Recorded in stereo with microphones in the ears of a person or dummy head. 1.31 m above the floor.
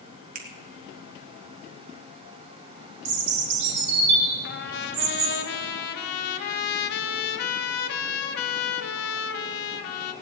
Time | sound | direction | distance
0.3 | a finger snap | 50° right (ahead or behind) | 3 m
3.0 | a bird | 65° right (ahead or behind) | 4.5 m
4.4 | a trumpet | 65° left (ahead or behind) | 1.5 m